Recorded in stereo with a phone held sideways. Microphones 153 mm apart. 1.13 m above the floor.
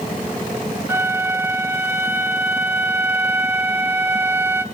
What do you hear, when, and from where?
0.9 s a flute: 15° right (ahead or behind), 1.8 m